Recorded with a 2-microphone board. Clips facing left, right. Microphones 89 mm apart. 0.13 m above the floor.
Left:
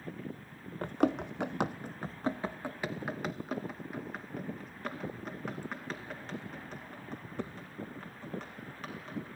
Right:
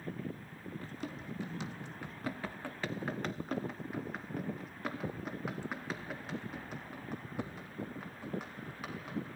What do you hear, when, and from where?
0.8 s running footsteps: 65° left (ahead or behind), 0.6 m; by 9.3 s 10° right (ahead or behind), 5 m